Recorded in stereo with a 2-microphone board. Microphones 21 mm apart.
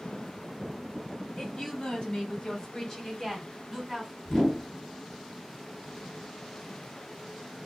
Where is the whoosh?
30° left (ahead or behind), 1.7 m.